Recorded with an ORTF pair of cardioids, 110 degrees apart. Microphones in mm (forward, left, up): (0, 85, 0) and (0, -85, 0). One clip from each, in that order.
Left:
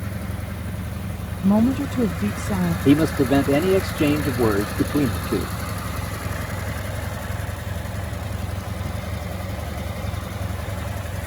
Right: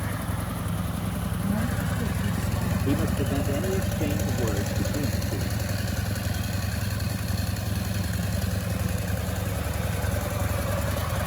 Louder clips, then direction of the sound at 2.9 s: Left 12 dB; 65° left.